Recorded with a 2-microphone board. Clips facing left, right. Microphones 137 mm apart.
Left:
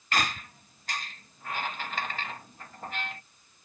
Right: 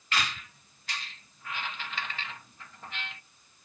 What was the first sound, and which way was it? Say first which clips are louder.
A squeak: left 3 dB; 45° left (ahead or behind).